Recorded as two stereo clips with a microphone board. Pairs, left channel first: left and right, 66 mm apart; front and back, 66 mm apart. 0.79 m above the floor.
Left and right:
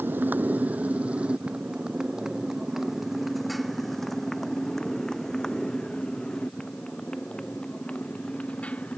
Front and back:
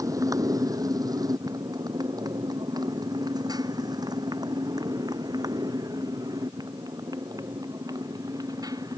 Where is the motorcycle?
150° right; by 9.0 s 160° left.